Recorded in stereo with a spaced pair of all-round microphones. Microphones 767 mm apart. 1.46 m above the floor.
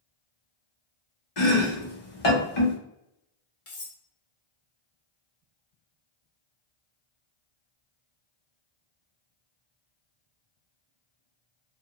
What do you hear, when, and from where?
1.4 s chopping: 50° left (ahead or behind), 0.9 m
3.7 s cutlery clinking: 45° left (ahead or behind), 0.8 m